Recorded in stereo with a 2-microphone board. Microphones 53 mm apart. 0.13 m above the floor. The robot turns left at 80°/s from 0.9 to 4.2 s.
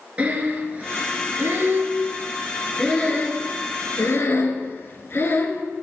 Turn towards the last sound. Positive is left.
turn(degrees=45)  # may be behind; listen again after turning